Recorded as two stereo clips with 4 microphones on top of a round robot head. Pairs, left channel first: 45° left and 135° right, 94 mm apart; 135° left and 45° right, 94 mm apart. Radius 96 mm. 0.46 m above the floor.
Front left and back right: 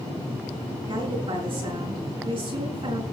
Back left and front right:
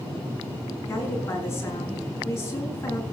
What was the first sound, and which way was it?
A woman speaking, 165° right.